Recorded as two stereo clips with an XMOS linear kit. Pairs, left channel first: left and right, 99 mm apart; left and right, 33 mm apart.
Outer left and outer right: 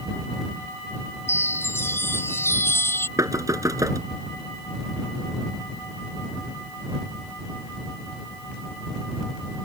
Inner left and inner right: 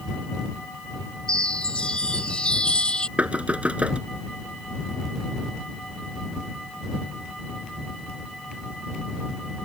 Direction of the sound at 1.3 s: 25° left (ahead or behind).